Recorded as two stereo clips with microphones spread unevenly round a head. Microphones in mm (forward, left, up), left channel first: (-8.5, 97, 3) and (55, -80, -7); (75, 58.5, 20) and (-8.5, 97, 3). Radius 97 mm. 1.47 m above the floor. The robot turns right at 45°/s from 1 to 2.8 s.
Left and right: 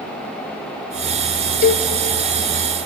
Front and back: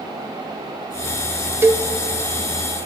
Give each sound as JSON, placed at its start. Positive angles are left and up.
{"t": 1.6, "sound": "a cowbell", "azimuth_deg": 85, "distance_m": 0.5}